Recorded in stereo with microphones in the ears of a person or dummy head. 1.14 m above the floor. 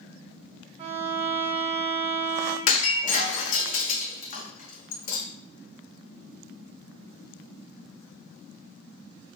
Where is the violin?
35° right (ahead or behind), 1.6 m.